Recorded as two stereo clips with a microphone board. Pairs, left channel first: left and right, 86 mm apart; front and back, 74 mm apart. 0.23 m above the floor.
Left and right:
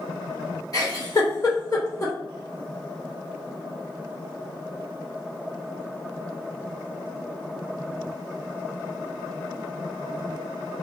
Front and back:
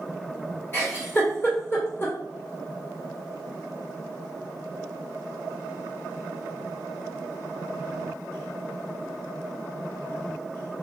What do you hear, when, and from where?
0.7 s a giggle: 50° left, 1.4 m